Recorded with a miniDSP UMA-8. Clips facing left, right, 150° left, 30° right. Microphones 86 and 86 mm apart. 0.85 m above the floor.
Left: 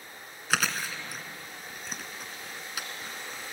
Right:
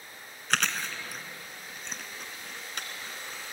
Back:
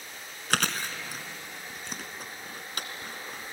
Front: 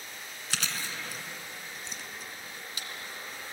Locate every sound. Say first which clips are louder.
0.5 s chewing: left 1 dB, back 7 dB; 175° left, 1.8 m